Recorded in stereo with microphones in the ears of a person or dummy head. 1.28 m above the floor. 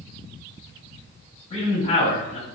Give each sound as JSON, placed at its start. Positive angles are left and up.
{"t": 1.5, "sound": "a man speaking", "side_deg": 40, "distance_m": 1.6}